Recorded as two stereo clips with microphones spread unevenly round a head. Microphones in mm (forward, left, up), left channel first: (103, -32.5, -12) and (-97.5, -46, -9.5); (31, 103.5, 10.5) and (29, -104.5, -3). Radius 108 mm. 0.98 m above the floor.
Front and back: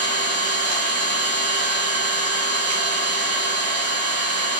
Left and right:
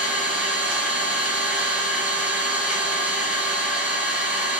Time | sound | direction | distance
0.0 | an engine running | 175° right | 1.6 m